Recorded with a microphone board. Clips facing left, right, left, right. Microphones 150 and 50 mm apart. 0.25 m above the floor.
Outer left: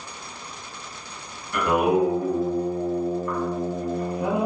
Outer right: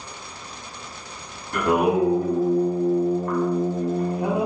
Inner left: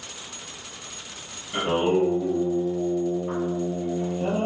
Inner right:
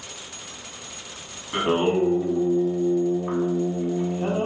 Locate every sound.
1.5 s singing: 40° right (ahead or behind), 1.2 m